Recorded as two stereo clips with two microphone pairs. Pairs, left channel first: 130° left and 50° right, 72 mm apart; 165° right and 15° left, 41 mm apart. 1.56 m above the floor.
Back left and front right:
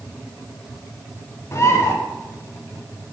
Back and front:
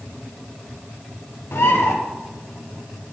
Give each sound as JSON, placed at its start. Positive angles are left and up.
{"t": 1.5, "sound": "a bird", "azimuth_deg": 180, "distance_m": 1.1}